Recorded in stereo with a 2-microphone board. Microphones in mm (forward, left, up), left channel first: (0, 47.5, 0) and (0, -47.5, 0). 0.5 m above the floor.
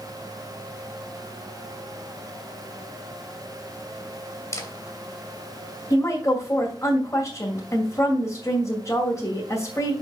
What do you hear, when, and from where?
4.5 s a camera shutter: 35° left (ahead or behind), 1.9 m
5.9 s a woman speaking: 30° left (ahead or behind), 2 m